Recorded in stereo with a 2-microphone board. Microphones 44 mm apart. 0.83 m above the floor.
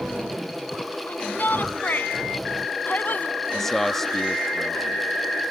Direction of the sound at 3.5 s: 10° left (ahead or behind).